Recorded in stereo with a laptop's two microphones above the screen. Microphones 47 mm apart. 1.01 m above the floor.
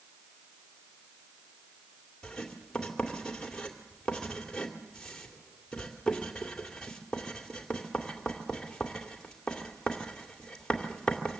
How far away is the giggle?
I don't hear a giggle.